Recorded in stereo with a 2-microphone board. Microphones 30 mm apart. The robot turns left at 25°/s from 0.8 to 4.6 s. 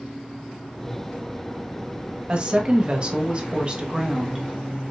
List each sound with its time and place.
2.3 s a woman speaking: 80° right, 1.0 m; by 4.4 s 135° right, 1.0 m